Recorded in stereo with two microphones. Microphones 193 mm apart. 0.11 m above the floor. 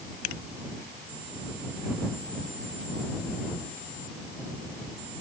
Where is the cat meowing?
I don't hear a cat meowing.